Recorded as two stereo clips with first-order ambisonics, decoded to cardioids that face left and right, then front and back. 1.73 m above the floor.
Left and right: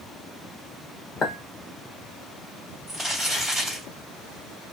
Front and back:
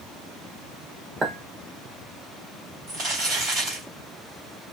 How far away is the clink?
About 1.0 m.